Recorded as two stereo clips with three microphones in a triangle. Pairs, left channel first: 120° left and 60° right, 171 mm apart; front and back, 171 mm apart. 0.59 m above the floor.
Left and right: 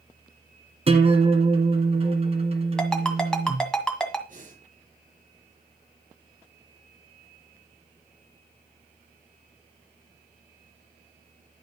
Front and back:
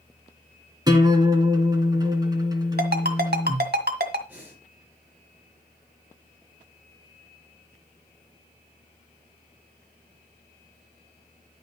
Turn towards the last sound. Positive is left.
turn(degrees=-100)